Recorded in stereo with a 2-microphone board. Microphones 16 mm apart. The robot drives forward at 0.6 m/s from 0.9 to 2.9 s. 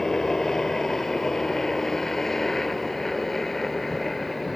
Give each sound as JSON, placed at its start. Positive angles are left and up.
{"t": 0.0, "sound": "a helicopter", "side_deg": 30}